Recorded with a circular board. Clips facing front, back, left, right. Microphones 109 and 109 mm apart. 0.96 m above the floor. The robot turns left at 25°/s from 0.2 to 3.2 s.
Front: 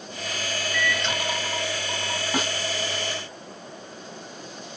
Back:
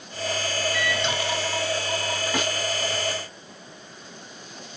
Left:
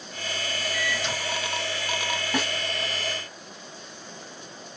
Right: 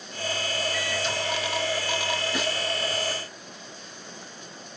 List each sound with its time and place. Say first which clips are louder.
0.7 s a microwave: back 1 dB, right 1 dB; 105° left, 1.7 m; by 1.1 s 95° left, 1.7 m
2.3 s a snare drum: front 1 dB, left 4 dB; 70° left, 1.8 m; by 2.5 s 65° left, 1.8 m